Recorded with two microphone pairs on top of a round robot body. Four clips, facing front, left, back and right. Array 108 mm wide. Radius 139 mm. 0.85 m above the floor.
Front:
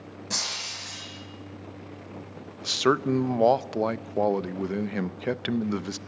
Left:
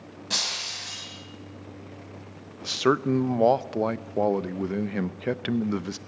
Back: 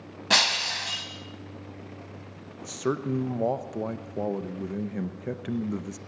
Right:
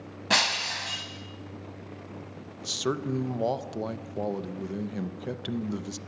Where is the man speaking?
40° left, 0.7 m.